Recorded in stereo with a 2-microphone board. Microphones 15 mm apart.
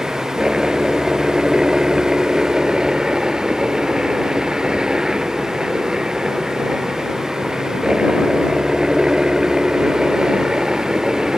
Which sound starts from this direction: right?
A helicopter, at 0.0 s.